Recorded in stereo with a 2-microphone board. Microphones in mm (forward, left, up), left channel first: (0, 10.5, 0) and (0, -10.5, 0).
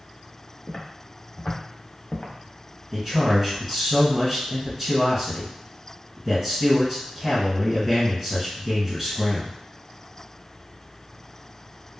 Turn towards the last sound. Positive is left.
turn(degrees=5)  # may be behind; listen again after turning